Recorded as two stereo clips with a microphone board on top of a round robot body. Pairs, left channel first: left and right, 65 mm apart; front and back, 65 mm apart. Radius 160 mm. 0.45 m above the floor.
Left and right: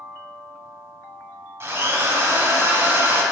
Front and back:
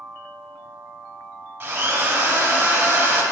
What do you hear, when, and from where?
1.6 s a drill: 125° right, 1.8 m